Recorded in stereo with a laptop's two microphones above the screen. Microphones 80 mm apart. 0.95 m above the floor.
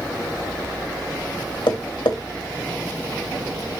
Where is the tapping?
85° left, 2.5 m.